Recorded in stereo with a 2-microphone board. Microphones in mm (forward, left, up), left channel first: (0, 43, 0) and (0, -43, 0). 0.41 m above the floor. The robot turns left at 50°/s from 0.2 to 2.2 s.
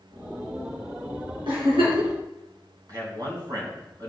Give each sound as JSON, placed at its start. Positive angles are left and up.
{"t": 1.5, "sound": "a giggle", "side_deg": -70, "distance_m": 3.0}
{"t": 2.9, "sound": "a man speaking", "side_deg": -45, "distance_m": 3.0}